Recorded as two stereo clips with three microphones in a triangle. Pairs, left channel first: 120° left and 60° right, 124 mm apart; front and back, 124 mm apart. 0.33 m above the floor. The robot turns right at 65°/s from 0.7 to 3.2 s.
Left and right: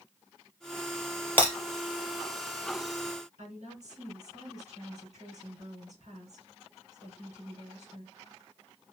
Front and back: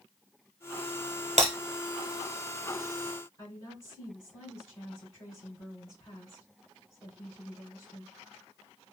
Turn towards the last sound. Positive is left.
turn(degrees=-60)